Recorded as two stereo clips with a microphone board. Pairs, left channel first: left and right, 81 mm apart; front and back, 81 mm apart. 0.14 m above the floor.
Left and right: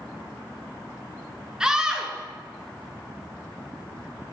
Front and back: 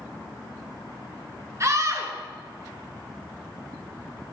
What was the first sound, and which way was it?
A scream, 165° right.